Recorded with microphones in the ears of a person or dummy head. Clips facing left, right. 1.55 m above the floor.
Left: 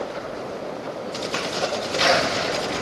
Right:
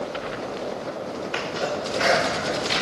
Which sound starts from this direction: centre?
A sneeze, at 1.3 s.